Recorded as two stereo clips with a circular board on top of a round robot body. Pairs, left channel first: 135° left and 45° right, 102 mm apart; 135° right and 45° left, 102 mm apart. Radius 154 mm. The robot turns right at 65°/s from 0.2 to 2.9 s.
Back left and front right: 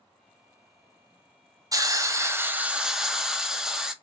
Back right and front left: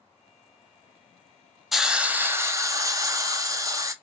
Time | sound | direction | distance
1.7 | a hiss | 40° right | 0.6 m